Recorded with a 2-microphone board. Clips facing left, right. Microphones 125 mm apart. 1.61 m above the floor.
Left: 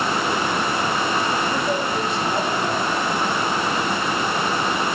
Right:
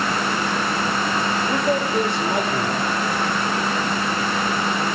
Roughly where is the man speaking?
Right.